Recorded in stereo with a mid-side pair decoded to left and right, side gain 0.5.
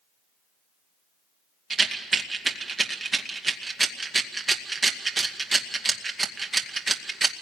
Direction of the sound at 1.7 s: 25° right.